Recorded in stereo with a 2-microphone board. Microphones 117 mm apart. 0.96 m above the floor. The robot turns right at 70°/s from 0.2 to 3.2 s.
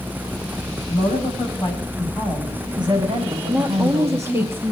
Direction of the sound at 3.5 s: 20° right (ahead or behind).